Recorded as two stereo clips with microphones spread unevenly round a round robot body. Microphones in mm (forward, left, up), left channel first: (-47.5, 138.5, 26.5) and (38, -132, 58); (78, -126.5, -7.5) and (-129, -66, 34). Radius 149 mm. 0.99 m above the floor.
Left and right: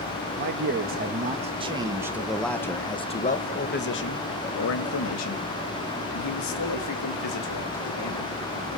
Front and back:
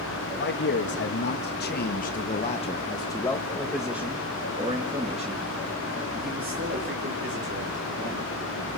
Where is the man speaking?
20° right, 1.8 m; by 8.3 s 110° left, 3.5 m.